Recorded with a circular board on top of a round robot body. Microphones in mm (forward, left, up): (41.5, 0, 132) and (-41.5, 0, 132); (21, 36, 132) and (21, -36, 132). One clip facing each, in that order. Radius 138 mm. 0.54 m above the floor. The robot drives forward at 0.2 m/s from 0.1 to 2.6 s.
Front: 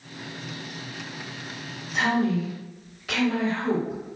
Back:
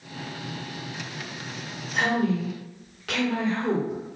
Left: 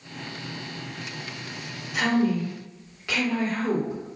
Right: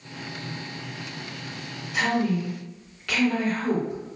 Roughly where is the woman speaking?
Behind.